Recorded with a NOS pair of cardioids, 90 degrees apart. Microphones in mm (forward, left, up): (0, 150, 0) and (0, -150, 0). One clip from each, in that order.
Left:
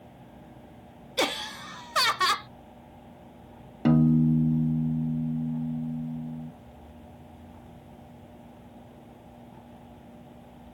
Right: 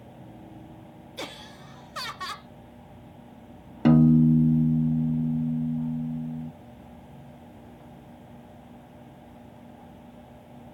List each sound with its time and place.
1.2 s laughter: 50° left
3.9 s a piano: 10° right